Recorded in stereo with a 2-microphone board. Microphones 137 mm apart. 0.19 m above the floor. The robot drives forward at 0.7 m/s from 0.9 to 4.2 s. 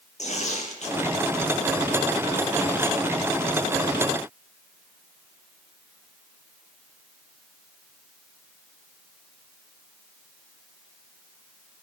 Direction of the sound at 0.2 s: 55° left (ahead or behind).